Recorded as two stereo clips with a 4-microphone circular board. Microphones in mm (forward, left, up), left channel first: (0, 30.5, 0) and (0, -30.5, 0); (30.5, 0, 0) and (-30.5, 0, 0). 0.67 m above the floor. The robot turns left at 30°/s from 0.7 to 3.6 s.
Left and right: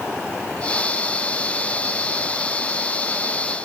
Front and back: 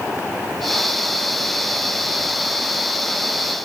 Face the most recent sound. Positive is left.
No sound to turn to.